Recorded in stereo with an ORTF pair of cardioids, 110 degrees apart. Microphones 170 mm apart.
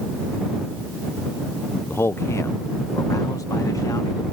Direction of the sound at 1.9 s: 15° left.